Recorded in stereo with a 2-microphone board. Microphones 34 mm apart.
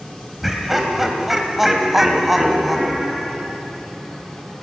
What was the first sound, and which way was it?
Laughter, 5° right (ahead or behind).